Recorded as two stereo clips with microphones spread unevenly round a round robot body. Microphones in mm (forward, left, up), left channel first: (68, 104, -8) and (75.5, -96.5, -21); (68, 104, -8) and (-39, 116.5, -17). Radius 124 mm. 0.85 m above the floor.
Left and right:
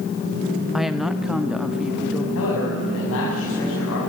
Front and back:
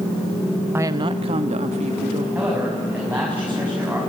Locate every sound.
0.7 s a woman speaking: 165° right, 0.5 m; by 2.2 s 175° right, 1.9 m
2.4 s a man speaking: 100° left, 7 m